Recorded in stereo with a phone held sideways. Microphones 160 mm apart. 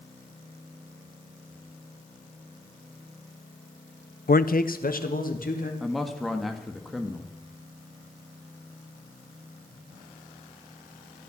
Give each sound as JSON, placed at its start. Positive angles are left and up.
{"t": 4.3, "sound": "a man speaking", "side_deg": 65, "distance_m": 0.5}
{"t": 5.8, "sound": "a man speaking", "side_deg": 0, "distance_m": 1.8}